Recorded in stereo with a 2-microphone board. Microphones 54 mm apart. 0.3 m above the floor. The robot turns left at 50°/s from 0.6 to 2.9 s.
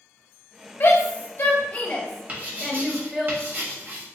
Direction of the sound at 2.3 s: 25° right (ahead or behind).